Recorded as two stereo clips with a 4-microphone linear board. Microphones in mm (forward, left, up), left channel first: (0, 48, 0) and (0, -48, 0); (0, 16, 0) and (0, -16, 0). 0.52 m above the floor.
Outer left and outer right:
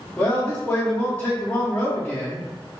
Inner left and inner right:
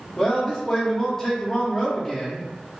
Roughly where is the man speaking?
Centre.